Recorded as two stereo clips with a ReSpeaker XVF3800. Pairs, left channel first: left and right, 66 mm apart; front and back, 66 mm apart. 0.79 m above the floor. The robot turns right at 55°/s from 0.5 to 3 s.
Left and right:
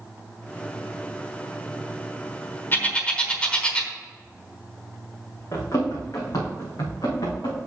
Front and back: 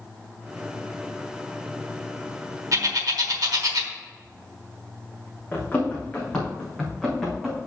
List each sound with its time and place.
2.7 s a bird: 150° left, 1.1 m; by 3.9 s 165° left, 1.1 m
5.5 s running footsteps: 60° left, 3 m; by 7.6 s 90° left, 3.5 m